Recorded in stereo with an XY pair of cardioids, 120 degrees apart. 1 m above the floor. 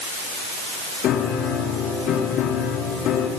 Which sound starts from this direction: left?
A piano, at 1.0 s.